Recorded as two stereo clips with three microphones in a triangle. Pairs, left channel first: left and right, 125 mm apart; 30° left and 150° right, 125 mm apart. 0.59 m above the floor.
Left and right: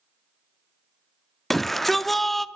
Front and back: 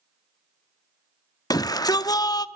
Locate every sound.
1.5 s a shout: straight ahead, 0.6 m